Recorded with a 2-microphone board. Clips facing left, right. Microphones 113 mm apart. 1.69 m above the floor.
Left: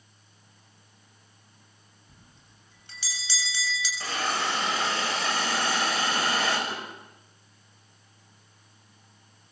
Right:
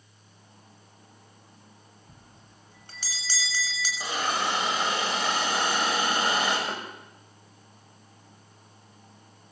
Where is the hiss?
15° right (ahead or behind), 7 m.